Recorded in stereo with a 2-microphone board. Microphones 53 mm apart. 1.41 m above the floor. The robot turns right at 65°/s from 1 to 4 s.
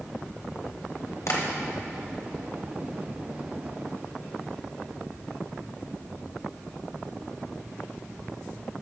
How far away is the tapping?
About 1.1 m.